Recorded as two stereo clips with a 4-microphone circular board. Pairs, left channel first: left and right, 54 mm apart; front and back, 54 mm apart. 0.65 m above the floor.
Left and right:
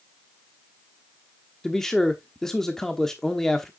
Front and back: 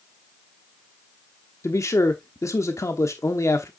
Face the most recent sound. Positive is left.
turn(degrees=5)